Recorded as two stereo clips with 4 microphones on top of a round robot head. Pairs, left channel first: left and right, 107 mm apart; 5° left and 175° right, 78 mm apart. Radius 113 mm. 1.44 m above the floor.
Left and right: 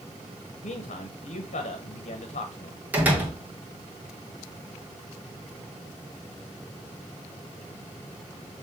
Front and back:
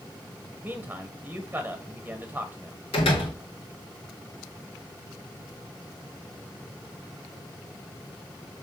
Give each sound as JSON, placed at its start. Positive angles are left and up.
{"t": 0.6, "sound": "a man speaking", "azimuth_deg": 115, "distance_m": 0.9}
{"t": 2.9, "sound": "a door slam", "azimuth_deg": -15, "distance_m": 1.7}